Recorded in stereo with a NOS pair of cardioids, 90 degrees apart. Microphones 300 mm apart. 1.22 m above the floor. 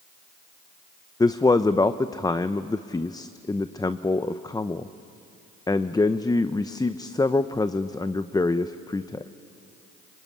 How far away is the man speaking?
About 0.7 m.